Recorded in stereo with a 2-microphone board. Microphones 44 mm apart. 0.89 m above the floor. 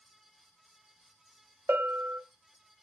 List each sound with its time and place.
1.7 s a bell: 50° right (ahead or behind), 0.9 m